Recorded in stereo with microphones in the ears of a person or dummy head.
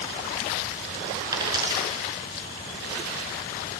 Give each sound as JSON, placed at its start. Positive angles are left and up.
{"t": 1.3, "sound": "a dropped coin", "side_deg": -20, "distance_m": 5.0}